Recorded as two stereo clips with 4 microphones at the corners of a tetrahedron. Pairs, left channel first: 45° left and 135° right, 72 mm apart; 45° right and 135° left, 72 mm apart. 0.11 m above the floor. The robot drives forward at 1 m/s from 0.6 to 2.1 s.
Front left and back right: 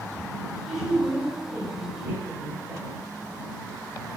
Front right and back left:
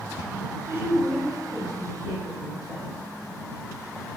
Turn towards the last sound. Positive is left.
turn(degrees=160)